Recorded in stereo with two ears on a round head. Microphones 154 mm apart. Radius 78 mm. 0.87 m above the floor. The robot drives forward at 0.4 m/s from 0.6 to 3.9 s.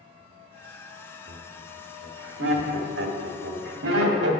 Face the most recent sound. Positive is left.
turn(degrees=-70)  # may be behind; listen again after turning